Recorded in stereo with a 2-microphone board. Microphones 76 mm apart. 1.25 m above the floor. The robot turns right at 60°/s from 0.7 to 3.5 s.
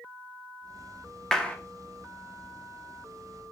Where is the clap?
5° left (ahead or behind), 0.5 m; by 1.6 s 20° left (ahead or behind), 0.5 m.